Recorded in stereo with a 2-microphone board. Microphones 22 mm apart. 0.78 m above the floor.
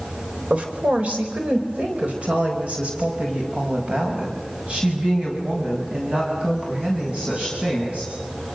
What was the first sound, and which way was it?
A woman speaking, 75° right (ahead or behind).